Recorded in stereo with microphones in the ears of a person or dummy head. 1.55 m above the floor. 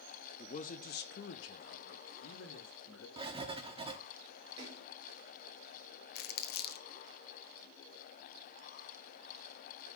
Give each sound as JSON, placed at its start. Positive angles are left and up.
{"t": 0.4, "sound": "a man speaking", "side_deg": 30, "distance_m": 0.9}
{"t": 3.2, "sound": "writing", "side_deg": -30, "distance_m": 0.9}
{"t": 4.6, "sound": "a splash", "side_deg": -25, "distance_m": 4.0}
{"t": 6.2, "sound": "crumpling", "side_deg": 65, "distance_m": 0.6}